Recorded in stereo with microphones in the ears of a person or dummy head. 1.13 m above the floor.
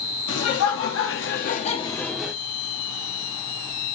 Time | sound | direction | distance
0.3 | laughter | 70° left (ahead or behind) | 1.3 m